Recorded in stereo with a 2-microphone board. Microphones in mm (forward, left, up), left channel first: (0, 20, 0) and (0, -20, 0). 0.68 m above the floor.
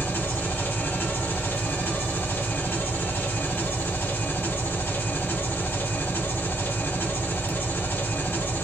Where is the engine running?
65° left (ahead or behind), 1.6 m.